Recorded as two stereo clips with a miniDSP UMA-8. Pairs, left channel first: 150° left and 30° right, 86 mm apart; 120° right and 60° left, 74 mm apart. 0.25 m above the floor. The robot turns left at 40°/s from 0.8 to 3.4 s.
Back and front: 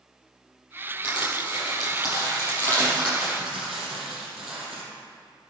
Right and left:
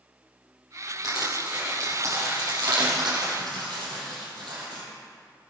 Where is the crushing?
150° left, 6.5 m; by 4.8 s 55° left, 6.5 m.